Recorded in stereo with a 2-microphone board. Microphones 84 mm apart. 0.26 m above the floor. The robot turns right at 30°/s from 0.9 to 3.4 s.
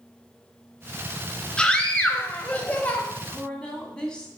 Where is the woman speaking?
15° left (ahead or behind), 1.5 m.